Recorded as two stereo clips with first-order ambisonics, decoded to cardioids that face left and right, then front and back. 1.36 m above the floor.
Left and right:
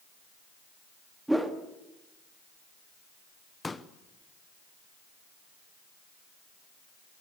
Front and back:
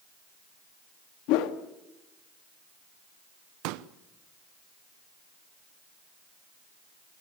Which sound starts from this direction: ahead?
A whoosh, at 1.3 s.